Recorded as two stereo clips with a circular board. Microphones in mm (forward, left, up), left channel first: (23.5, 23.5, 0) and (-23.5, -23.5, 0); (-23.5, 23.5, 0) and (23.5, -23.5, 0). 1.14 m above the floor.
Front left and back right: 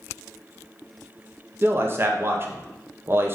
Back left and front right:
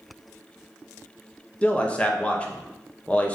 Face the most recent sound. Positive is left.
turn(degrees=-165)